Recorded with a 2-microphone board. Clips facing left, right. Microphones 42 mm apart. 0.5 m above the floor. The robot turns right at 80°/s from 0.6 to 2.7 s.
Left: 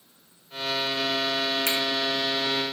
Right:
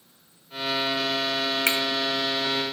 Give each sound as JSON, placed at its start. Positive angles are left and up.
{"t": 1.7, "sound": "a finger snap", "side_deg": -55, "distance_m": 1.2}